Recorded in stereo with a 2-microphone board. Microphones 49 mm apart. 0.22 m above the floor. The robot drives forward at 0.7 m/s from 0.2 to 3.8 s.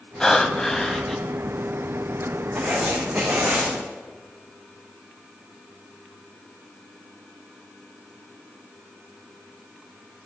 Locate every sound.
0.2 s breathing: 15° left (ahead or behind), 1.1 m; by 1.2 s 10° left (ahead or behind), 1.5 m
2.5 s writing: 10° right (ahead or behind), 7 m